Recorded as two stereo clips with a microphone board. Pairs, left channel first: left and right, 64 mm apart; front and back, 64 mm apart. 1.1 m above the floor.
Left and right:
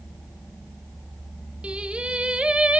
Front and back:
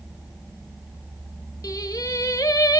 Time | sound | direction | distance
1.6 | singing | 15° right | 0.8 m